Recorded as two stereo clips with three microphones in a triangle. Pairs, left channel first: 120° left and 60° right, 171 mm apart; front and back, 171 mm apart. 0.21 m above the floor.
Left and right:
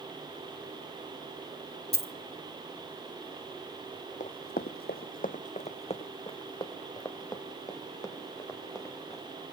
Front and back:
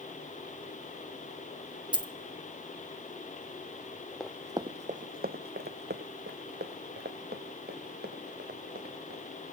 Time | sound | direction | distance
1.9 | a dropped coin | 120° left | 0.7 m
4.2 | running footsteps | 85° left | 0.5 m